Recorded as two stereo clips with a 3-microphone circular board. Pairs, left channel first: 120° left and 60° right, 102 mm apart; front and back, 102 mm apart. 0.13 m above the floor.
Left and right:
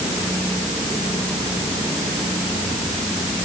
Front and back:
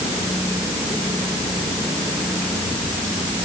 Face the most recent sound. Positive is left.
No sound to turn to.